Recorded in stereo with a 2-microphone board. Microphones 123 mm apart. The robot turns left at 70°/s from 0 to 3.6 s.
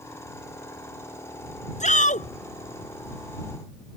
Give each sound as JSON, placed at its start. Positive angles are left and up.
{"t": 1.8, "sound": "a shout", "azimuth_deg": 110}